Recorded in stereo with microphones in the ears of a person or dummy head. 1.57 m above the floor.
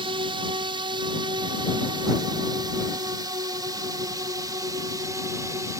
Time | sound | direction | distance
0.0 | a drone | 30° right (ahead or behind) | ?